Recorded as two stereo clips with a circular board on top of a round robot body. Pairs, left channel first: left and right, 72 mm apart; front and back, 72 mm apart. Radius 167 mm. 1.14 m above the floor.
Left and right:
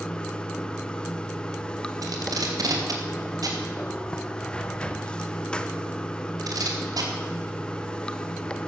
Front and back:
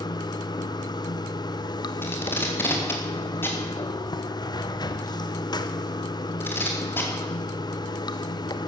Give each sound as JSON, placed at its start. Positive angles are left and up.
{"t": 0.0, "sound": "running water", "azimuth_deg": 15, "distance_m": 0.9}
{"t": 2.0, "sound": "tape being pulled", "azimuth_deg": -60, "distance_m": 2.5}